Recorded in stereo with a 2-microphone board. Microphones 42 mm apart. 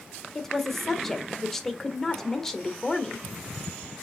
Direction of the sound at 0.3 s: 5° left (ahead or behind).